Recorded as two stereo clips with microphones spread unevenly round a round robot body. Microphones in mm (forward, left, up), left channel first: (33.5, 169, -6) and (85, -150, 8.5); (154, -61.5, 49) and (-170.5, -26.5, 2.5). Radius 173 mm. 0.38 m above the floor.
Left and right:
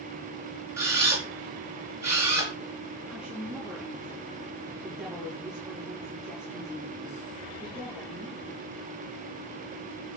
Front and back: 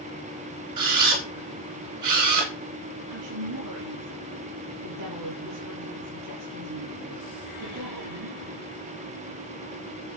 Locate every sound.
0.8 s a camera shutter: 165° right, 4 m
3.1 s a woman speaking: 170° right, 5.5 m